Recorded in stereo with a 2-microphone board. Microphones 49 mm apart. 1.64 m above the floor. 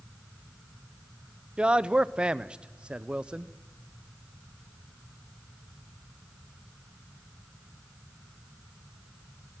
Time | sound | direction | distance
1.6 | a man speaking | 20° right (ahead or behind) | 0.7 m